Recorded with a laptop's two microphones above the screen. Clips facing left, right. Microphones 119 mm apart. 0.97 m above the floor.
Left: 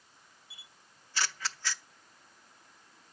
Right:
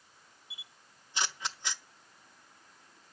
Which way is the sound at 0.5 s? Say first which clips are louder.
Right 1 dB; 20° right (ahead or behind).